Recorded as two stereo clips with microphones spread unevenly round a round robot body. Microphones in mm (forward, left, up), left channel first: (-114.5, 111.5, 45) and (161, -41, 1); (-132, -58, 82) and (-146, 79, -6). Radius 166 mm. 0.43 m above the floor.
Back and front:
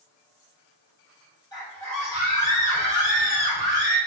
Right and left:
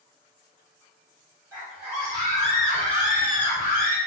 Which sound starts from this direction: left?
A scream, at 1.5 s.